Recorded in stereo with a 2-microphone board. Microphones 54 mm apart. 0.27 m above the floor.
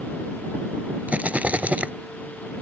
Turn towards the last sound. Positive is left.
turn(degrees=-25)  # may be behind; listen again after turning